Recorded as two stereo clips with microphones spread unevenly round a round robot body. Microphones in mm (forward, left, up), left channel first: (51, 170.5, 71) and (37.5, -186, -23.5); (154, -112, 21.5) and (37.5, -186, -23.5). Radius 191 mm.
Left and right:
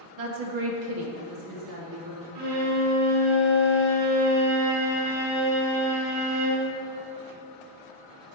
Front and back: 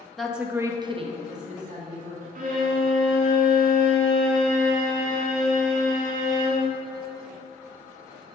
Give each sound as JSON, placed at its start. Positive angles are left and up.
{"t": 0.2, "sound": "a woman speaking", "azimuth_deg": -60, "distance_m": 1.3}
{"t": 2.4, "sound": "a violin", "azimuth_deg": -125, "distance_m": 1.4}